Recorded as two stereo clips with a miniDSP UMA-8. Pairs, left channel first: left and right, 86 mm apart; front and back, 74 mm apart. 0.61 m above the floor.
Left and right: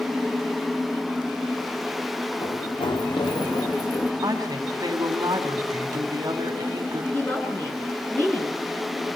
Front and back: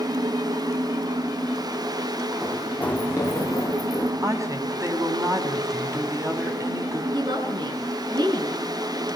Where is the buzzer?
I don't hear a buzzer.